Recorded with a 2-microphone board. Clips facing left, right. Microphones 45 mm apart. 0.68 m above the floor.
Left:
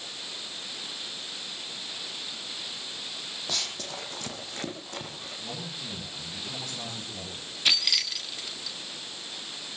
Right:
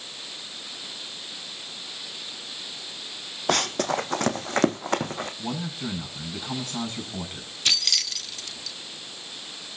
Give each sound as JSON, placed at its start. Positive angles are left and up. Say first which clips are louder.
{"t": 3.5, "sound": "running footsteps", "louder": "right 13 dB", "side_deg": -55, "distance_m": 1.3}
{"t": 5.4, "sound": "a man speaking", "louder": "right 7 dB", "side_deg": -60, "distance_m": 7.0}
{"t": 7.7, "sound": "keys jangling", "louder": "even", "side_deg": 10, "distance_m": 0.9}